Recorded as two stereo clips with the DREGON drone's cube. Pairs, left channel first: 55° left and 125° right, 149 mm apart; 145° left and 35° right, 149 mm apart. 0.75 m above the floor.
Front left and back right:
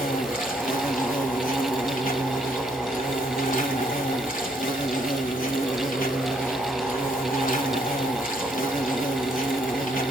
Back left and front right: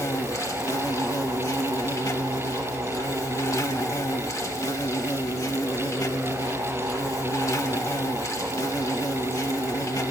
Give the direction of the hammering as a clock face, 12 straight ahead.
No hammering in this recording.